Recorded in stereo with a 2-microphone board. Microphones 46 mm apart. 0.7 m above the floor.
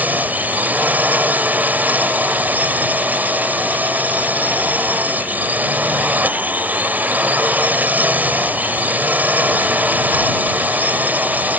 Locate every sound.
0.0 s a drone: 35° right (ahead or behind)